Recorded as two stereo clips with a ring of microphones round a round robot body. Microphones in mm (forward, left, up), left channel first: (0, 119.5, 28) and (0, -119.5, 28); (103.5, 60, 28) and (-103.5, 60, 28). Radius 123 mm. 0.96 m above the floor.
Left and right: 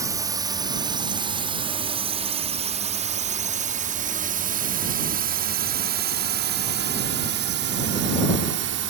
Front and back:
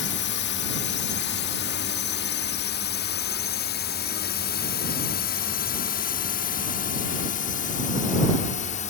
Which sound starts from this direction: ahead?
A drone, at 0.0 s.